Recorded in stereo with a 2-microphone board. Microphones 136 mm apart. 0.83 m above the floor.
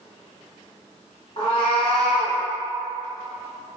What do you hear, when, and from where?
1.4 s a cat meowing: 45° left (ahead or behind), 1.4 m